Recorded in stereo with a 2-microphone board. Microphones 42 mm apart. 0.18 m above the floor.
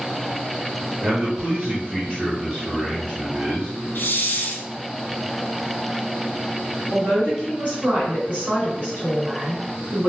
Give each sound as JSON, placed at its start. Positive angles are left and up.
{"t": 1.0, "sound": "a man speaking", "side_deg": -40, "distance_m": 1.5}
{"t": 4.0, "sound": "a hiss", "side_deg": 65, "distance_m": 0.5}
{"t": 6.9, "sound": "a man speaking", "side_deg": -45, "distance_m": 1.9}